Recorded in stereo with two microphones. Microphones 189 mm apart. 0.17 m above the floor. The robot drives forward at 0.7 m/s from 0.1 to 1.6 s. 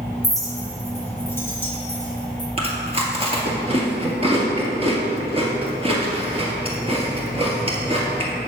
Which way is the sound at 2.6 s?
30° right (ahead or behind).